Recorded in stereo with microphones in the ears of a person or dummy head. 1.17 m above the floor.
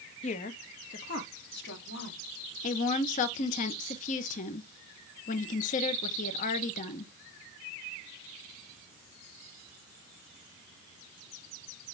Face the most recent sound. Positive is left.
turn(degrees=40)  # may be behind; listen again after turning